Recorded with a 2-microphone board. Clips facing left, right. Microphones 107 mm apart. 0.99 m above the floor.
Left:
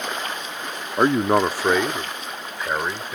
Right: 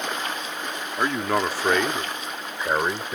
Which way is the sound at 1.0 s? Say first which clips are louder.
Left 6 dB; 40° left (ahead or behind).